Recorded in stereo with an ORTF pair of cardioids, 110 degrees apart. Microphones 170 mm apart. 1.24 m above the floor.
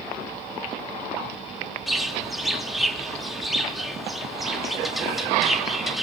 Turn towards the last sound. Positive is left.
turn(degrees=0)